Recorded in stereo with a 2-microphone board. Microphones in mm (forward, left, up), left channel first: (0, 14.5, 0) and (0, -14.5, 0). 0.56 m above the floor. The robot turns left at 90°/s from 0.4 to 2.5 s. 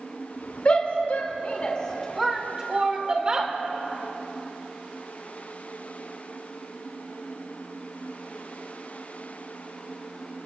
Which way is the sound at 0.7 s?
40° left (ahead or behind).